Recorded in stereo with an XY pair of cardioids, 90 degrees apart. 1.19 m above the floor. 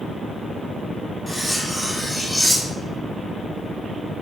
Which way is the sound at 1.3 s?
5° left.